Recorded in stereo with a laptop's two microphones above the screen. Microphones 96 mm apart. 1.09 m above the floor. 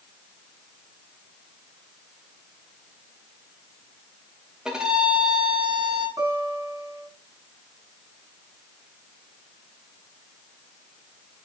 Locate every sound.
4.7 s a violin: 10° right (ahead or behind), 3.5 m
6.2 s a guitar: 35° right (ahead or behind), 6 m